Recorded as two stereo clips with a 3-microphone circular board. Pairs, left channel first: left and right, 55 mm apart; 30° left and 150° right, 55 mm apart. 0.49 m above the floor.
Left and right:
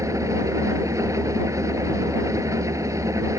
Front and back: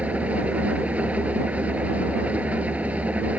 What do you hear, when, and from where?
0.0 s an engine running: 90° right